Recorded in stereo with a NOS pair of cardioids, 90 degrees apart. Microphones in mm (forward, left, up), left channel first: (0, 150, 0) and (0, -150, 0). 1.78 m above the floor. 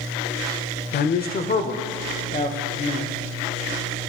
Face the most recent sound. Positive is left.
turn(degrees=25)